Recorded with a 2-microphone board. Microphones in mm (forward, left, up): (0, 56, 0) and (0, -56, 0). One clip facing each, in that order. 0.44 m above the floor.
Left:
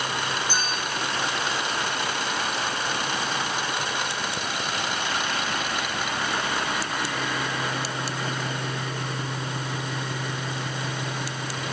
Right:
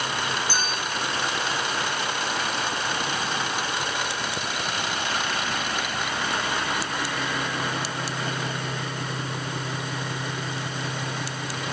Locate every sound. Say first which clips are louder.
0.5 s a clink: even; 20° left (ahead or behind), 7.5 m